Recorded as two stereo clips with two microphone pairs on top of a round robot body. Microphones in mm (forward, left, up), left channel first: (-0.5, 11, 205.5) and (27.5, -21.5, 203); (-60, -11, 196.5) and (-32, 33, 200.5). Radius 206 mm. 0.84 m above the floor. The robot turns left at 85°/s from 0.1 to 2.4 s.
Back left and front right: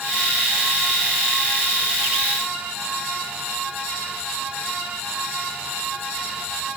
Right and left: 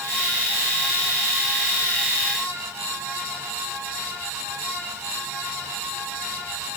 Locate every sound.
Only background noise.